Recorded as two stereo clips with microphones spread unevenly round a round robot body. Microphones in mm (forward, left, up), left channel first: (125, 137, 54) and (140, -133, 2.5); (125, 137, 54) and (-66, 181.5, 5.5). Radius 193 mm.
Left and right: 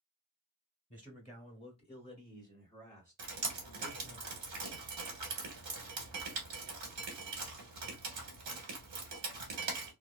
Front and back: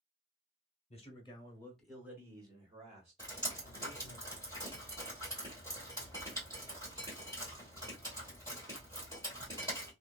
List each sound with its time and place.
0.9 s a man speaking: 35° left, 1.0 m; by 4.2 s 170° right, 1.9 m
3.2 s dripping: 115° right, 1.1 m